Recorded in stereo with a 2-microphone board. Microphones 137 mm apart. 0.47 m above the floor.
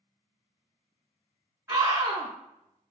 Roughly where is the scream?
Right.